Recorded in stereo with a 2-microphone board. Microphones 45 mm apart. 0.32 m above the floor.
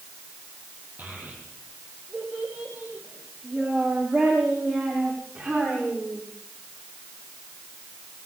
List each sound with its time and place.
1.0 s a child speaking: 40° right (ahead or behind), 7.5 m; by 6.2 s 30° right (ahead or behind), 15.5 m